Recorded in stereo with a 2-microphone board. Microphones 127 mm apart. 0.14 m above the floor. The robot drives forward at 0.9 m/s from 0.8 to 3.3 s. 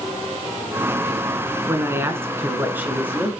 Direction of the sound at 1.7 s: 20° right (ahead or behind).